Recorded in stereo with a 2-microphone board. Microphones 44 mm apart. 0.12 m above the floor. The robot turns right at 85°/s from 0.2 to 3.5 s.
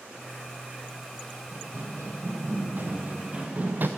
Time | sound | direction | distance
1.5 | running footsteps | 40° right (ahead or behind) | 3.5 m